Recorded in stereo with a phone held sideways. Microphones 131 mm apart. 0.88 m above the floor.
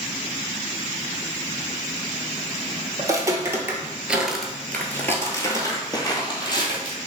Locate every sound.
3.0 s footsteps: 25° right (ahead or behind), 1.2 m; by 7.0 s 35° left (ahead or behind), 1.7 m